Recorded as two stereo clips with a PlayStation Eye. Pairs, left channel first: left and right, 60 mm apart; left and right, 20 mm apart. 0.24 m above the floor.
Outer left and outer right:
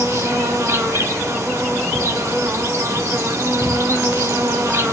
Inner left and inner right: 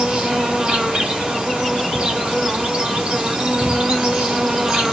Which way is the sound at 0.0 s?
55° right (ahead or behind).